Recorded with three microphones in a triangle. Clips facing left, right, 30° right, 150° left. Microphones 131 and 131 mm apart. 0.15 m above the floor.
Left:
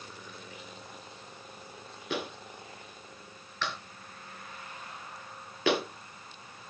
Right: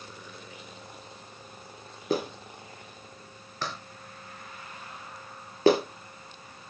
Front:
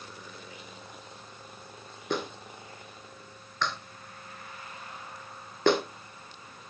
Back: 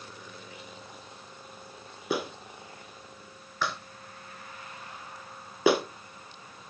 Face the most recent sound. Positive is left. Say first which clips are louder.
# right 6 dB, back 1 dB
turn(degrees=-130)